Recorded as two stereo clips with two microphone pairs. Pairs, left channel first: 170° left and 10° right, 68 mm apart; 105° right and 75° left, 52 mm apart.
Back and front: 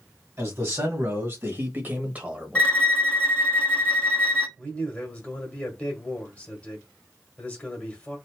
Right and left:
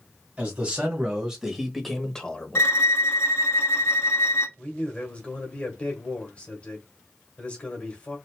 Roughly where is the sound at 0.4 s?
Ahead.